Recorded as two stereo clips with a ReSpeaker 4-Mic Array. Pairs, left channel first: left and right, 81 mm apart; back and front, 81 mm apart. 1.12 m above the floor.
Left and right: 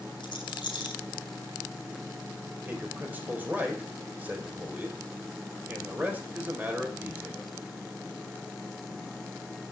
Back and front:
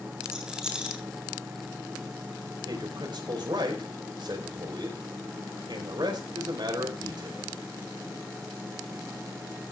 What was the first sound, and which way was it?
A rattle, 80° left.